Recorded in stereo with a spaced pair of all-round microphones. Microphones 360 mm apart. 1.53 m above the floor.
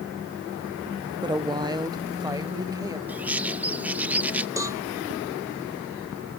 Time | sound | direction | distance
1.2 | a woman speaking | 10° right (ahead or behind) | ?
3.1 | a bird | 5° right (ahead or behind) | ?
4.6 | a cowbell | 10° right (ahead or behind) | ?